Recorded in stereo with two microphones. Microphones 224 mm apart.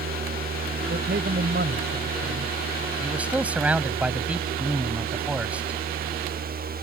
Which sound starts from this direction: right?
A man speaking, at 0.9 s.